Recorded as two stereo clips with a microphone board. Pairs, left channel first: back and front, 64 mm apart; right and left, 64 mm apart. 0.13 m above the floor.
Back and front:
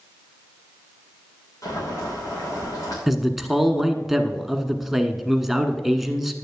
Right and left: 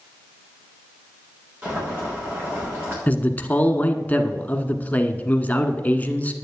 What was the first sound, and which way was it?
Boiling, 150° left.